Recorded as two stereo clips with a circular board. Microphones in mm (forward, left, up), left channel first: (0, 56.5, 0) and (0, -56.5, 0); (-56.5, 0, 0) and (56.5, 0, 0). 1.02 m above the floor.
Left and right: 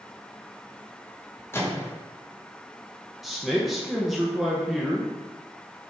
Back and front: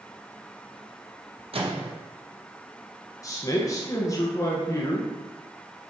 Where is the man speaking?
175° right, 0.7 m.